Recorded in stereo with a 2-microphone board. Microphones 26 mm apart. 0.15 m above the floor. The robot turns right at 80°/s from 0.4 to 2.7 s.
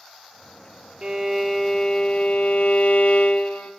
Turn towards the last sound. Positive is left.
turn(degrees=95)